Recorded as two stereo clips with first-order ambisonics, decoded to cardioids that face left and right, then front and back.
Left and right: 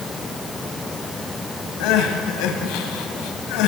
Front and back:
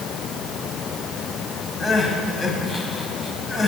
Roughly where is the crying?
Left.